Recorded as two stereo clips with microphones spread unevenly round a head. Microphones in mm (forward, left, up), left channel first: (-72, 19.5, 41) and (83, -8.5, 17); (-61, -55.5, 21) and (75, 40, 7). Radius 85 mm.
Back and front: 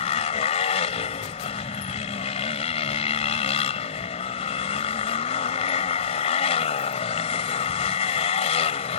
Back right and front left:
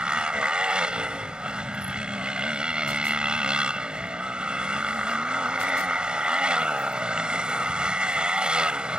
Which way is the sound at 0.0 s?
120° left.